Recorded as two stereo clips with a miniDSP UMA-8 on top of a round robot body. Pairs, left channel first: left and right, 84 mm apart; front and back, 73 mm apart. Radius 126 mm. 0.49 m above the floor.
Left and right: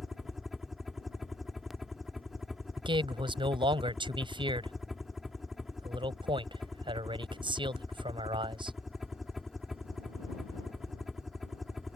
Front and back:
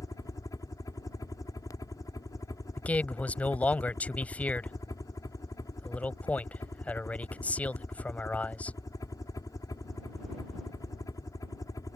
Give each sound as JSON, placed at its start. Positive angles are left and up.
{"t": 0.0, "sound": "a helicopter", "azimuth_deg": -5}
{"t": 2.8, "sound": "a man speaking", "azimuth_deg": -70}